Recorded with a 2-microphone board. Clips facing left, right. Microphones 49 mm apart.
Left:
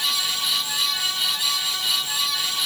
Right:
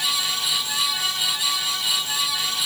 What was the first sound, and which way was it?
Only background noise.